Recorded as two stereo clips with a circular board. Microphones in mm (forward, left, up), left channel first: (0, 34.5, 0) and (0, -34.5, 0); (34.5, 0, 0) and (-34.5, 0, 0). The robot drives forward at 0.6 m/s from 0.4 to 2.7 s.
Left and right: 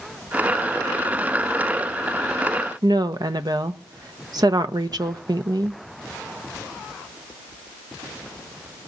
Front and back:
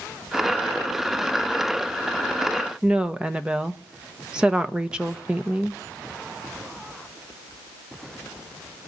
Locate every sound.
2.8 s a woman speaking: 105° right, 1.1 m